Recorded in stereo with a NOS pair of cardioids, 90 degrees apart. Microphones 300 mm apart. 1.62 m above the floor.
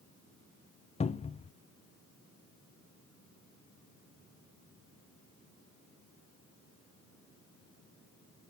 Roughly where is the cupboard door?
Ahead.